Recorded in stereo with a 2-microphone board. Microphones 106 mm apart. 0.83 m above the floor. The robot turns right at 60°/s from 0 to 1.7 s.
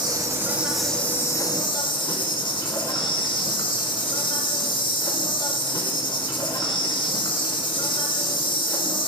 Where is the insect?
50° right, 1.0 m; by 9.1 s 55° left, 1.0 m.